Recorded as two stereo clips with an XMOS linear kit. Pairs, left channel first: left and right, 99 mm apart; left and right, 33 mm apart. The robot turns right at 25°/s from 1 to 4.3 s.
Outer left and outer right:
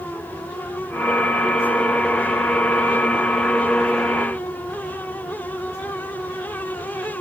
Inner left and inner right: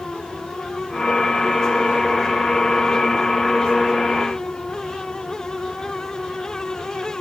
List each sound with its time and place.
Only background noise.